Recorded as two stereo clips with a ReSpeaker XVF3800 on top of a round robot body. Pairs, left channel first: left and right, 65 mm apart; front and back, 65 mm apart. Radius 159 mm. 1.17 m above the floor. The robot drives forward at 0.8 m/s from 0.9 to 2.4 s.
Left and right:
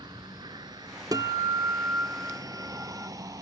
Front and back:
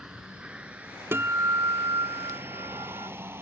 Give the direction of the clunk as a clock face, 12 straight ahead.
No clunk in this recording.